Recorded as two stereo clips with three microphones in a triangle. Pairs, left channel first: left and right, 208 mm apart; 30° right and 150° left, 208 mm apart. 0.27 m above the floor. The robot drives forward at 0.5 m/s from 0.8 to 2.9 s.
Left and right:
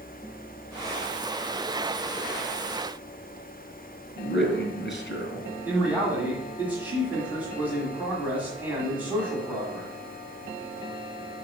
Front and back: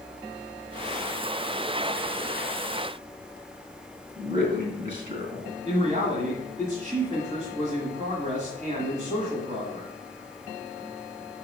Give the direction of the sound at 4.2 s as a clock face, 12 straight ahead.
8 o'clock.